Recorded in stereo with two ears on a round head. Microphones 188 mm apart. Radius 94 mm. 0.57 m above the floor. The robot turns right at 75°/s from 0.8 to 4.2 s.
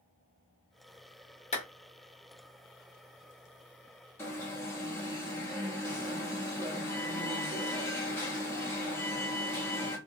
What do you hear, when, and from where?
1.5 s a clap: 30° left (ahead or behind), 1.1 m; by 1.6 s 35° left (ahead or behind), 1.1 m
4.2 s an alarm: 10° left (ahead or behind), 1.0 m